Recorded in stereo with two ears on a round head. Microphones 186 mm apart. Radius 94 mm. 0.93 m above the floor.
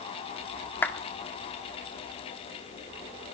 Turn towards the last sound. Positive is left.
turn(degrees=10)  # may be behind; listen again after turning